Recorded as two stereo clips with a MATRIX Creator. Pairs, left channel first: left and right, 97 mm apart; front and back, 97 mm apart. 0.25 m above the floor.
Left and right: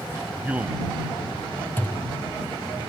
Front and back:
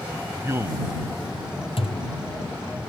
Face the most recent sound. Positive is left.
turn(degrees=20)